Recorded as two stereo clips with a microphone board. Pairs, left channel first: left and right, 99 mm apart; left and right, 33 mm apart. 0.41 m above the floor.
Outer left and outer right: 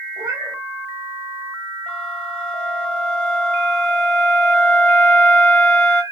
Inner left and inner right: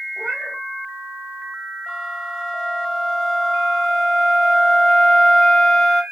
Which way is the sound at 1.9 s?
10° left (ahead or behind).